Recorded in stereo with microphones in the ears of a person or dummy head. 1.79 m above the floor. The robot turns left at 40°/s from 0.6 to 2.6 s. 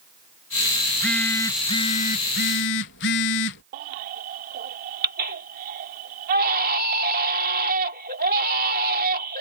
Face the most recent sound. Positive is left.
turn(degrees=-50)  # may be behind; listen again after turning